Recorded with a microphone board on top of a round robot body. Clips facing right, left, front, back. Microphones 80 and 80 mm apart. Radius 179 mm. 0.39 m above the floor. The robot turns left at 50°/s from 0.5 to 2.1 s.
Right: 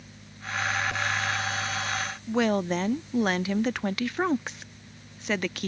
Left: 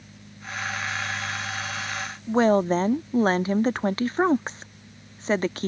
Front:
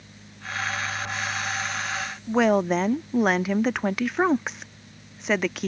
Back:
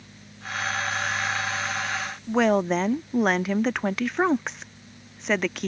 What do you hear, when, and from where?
2.3 s a woman speaking: 85° left